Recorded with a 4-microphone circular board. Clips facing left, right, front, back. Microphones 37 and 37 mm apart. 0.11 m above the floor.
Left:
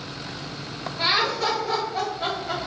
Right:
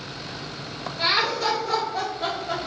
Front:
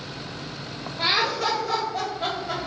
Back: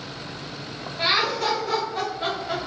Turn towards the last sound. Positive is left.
turn(degrees=140)